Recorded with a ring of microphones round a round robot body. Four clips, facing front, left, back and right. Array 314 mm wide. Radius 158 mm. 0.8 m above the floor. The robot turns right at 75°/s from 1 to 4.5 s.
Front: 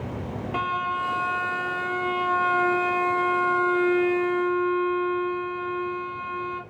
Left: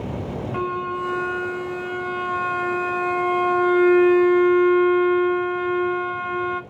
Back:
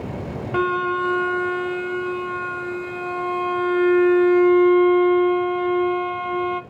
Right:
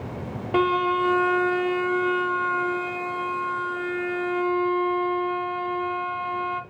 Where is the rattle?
I don't hear a rattle.